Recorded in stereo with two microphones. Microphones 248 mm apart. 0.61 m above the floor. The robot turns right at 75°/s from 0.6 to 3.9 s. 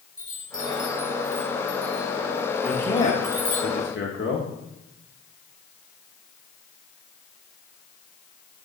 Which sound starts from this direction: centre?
A man speaking, at 2.6 s.